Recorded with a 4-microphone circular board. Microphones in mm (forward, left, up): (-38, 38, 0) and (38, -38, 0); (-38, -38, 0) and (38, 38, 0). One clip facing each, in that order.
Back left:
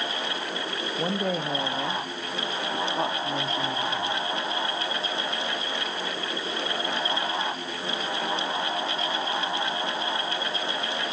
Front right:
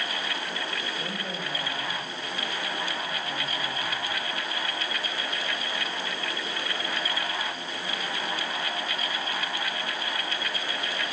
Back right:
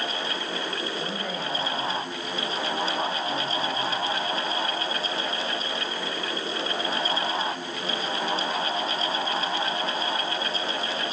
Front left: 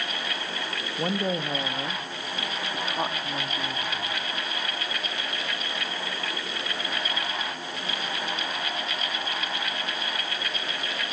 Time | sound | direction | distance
1.0 | a woman speaking | 95° left | 1.6 m